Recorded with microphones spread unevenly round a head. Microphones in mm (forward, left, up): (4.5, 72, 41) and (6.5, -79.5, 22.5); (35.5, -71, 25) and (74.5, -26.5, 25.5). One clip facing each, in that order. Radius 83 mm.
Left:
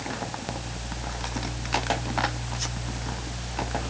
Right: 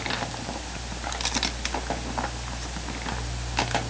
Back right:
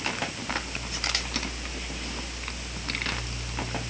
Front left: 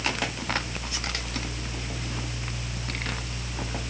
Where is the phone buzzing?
I don't hear a phone buzzing.